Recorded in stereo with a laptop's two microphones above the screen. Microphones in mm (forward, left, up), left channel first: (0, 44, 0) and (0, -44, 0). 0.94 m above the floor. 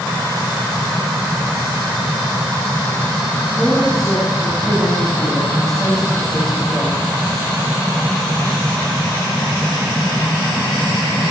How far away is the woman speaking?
About 9 m.